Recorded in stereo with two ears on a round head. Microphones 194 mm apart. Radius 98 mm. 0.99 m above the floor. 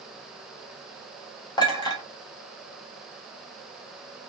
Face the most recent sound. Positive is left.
turn(degrees=20)  # may be behind; listen again after turning